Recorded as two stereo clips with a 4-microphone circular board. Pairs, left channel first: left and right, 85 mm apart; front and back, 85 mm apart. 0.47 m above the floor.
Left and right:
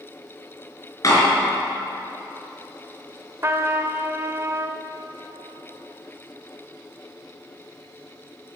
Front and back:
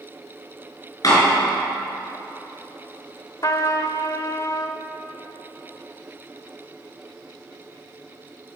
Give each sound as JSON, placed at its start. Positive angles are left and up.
{"t": 1.0, "sound": "a door slam", "azimuth_deg": 40, "distance_m": 5.0}
{"t": 3.4, "sound": "a trumpet", "azimuth_deg": -35, "distance_m": 1.0}